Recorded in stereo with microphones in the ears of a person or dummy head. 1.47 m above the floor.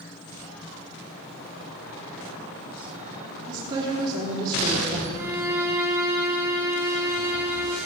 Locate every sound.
3.5 s a woman speaking: 30° right (ahead or behind), 1.3 m
5.1 s a violin: 10° right (ahead or behind), 1.2 m